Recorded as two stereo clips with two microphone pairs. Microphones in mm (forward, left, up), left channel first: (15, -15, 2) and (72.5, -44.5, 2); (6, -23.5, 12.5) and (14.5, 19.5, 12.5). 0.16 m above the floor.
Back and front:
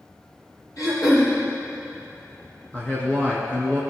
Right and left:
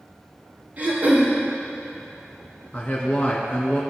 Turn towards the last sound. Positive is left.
turn(degrees=-140)